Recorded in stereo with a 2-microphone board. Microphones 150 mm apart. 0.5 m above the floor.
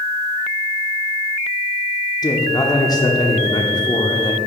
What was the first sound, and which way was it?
A man speaking, 25° left (ahead or behind).